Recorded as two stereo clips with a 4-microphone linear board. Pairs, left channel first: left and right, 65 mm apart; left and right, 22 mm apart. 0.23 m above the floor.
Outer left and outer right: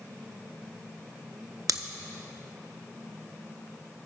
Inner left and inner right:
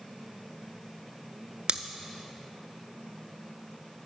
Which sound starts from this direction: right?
Scissors, at 1.7 s.